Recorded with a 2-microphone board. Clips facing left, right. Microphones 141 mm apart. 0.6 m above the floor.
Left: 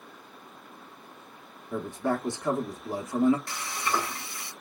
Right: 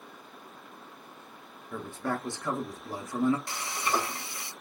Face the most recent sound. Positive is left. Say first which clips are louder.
# even
turn(degrees=-25)  # may be behind; listen again after turning